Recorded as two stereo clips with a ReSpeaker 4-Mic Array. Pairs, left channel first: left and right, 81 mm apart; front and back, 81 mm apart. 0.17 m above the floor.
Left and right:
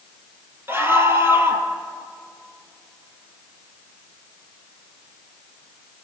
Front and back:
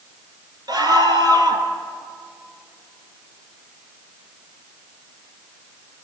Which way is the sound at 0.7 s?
150° right.